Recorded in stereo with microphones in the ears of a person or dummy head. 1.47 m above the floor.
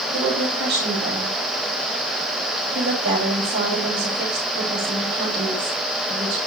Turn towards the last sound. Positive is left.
turn(degrees=-75)  # may be behind; listen again after turning